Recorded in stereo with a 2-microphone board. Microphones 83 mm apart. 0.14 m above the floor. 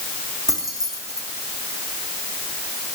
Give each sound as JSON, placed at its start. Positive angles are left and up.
{"t": 0.5, "sound": "keys jangling", "side_deg": -50, "distance_m": 5.0}